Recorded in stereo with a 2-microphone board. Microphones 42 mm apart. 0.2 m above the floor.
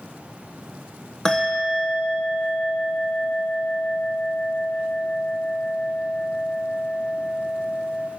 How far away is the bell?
About 1.3 m.